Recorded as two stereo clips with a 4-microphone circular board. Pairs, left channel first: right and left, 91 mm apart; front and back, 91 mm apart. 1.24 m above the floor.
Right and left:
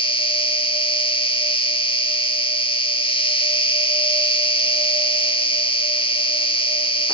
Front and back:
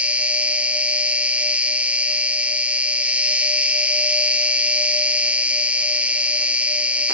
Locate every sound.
0.0 s an insect: 105° right, 1.6 m